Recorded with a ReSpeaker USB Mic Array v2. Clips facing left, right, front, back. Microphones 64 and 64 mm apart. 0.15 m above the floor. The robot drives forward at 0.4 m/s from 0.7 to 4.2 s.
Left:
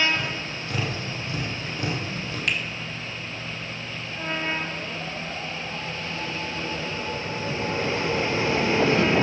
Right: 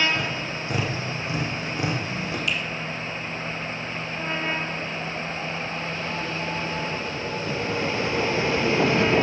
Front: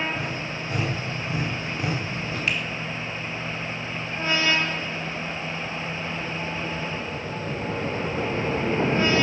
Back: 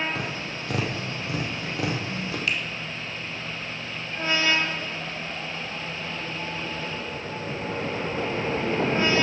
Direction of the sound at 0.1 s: 160° right.